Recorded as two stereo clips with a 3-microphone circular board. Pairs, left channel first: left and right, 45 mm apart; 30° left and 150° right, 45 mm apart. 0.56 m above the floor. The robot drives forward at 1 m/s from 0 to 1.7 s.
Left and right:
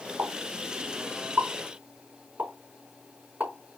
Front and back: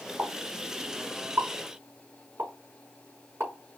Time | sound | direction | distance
0.2 | a pop | 115° right | 3.5 m